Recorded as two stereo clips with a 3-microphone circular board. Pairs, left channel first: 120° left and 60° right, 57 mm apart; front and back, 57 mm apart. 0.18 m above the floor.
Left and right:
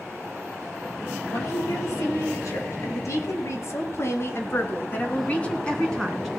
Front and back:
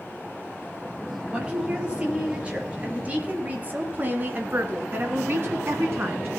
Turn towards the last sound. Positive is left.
turn(degrees=-150)